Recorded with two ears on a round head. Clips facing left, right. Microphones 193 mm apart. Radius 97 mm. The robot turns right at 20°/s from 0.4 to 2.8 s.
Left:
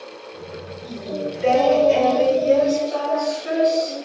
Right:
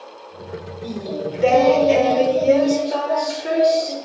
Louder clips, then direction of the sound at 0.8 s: Right 1 dB; 105° right.